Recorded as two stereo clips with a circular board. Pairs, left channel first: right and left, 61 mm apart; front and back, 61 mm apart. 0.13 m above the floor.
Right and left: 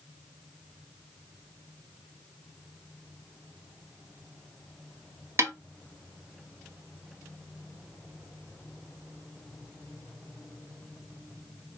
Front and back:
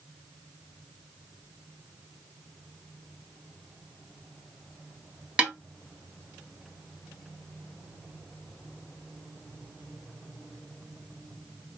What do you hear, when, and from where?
5.4 s a snare drum: 115° left, 1.0 m